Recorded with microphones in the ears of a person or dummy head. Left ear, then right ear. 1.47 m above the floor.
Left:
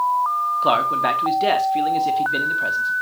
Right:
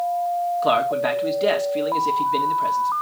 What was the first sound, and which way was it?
A man speaking, 10° left (ahead or behind).